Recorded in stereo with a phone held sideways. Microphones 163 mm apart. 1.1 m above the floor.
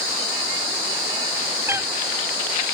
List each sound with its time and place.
1.7 s a cat meowing: 15° right (ahead or behind)